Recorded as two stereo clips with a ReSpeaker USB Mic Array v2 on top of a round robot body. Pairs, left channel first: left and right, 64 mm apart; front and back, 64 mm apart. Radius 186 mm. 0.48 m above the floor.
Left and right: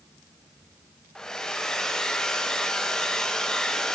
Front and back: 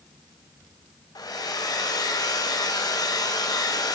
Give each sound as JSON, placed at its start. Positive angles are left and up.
{"t": 1.1, "sound": "a hair dryer", "azimuth_deg": 15, "distance_m": 2.5}